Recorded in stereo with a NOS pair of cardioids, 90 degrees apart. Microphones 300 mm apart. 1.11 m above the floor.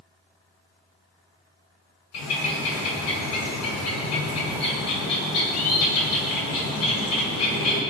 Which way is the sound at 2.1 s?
65° left.